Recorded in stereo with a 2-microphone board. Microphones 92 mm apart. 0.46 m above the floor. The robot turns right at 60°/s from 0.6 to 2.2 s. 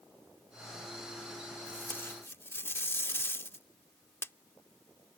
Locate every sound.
1.7 s tape being pulled: 20° left (ahead or behind); by 4.3 s 25° left (ahead or behind)